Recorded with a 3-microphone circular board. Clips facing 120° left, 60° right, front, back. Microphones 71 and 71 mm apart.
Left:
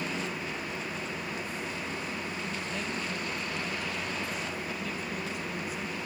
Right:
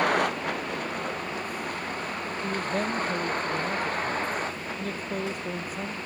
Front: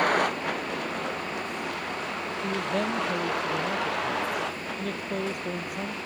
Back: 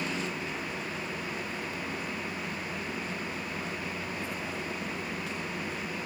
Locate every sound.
0.0 s a vehicle: 30° right; by 6.1 s 10° right
2.4 s a man speaking: 15° right